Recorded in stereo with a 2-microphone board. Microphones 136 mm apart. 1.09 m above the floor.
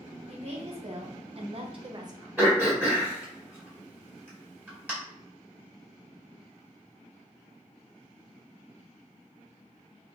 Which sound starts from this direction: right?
A woman speaking, at 0.3 s.